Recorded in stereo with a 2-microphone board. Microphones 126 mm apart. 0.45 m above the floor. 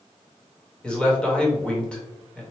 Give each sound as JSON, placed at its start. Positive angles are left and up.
{"t": 0.8, "sound": "a man speaking", "side_deg": 10, "distance_m": 1.4}